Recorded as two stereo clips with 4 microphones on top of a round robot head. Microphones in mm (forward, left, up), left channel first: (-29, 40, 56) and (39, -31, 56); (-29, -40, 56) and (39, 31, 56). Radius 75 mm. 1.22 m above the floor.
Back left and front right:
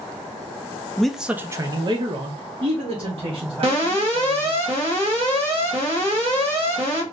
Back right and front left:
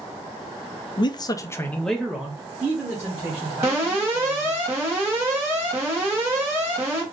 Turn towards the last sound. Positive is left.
turn(degrees=-20)